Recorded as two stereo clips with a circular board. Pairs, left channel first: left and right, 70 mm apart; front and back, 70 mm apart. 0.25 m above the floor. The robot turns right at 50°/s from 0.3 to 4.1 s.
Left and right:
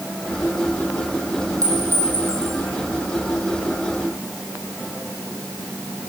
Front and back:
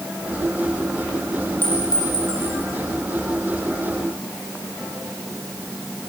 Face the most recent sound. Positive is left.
turn(degrees=70)